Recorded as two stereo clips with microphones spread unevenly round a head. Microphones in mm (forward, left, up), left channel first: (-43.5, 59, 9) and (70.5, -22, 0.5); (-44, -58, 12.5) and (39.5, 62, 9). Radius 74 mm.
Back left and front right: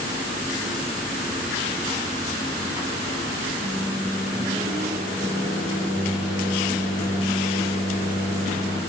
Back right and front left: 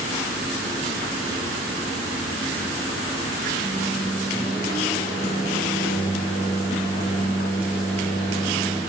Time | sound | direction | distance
3.6 | a microwave | 70° right | 2 m